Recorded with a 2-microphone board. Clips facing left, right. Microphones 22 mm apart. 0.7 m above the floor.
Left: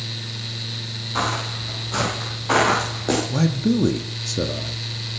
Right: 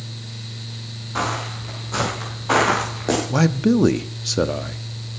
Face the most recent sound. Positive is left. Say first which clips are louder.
# right 3 dB
turn(degrees=-30)  # may be behind; listen again after turning